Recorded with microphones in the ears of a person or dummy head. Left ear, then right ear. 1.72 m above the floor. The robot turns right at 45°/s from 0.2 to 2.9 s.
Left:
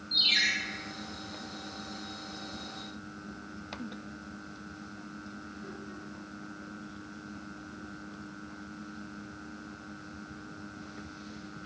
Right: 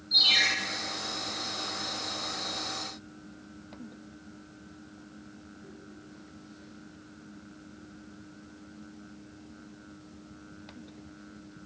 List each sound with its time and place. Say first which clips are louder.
0.1 s a ringtone: right 3 dB; centre (ahead or behind), 1.5 m; by 0.5 s 15° left (ahead or behind), 1.5 m